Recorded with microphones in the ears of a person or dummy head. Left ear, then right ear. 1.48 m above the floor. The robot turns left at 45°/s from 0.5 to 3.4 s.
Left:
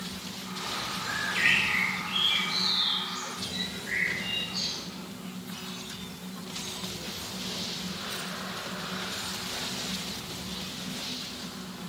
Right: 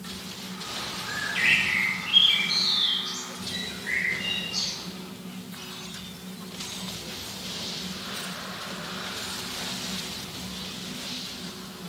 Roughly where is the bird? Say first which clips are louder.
Right 2 dB; ahead.